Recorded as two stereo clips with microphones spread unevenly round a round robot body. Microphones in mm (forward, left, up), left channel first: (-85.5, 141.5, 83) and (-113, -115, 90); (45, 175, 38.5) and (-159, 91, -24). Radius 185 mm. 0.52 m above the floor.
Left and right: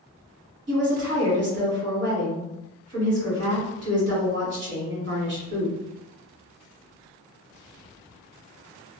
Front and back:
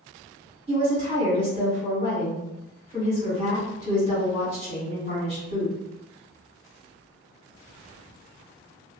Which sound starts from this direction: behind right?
A woman speaking, at 0.7 s.